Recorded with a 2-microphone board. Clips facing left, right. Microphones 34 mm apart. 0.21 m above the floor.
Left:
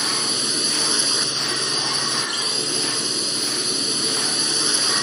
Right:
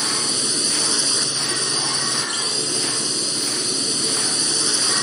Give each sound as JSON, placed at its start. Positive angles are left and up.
{"t": 0.0, "sound": "a drone", "side_deg": 10}